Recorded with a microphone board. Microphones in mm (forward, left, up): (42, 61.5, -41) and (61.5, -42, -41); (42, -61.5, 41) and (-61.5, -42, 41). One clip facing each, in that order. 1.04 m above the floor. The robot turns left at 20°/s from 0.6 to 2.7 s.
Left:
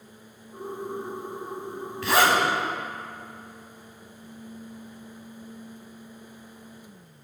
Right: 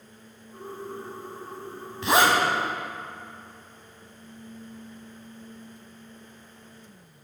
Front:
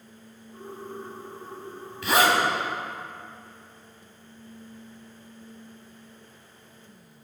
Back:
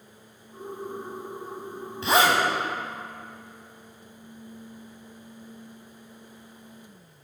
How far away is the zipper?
About 1.2 m.